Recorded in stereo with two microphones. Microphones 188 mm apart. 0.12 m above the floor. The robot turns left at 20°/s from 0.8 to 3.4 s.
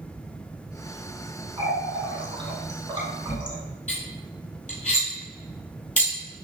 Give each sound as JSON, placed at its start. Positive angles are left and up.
{"t": 1.6, "sound": "a running tap", "side_deg": -30, "distance_m": 1.0}
{"t": 3.9, "sound": "cutlery clinking", "side_deg": 45, "distance_m": 1.7}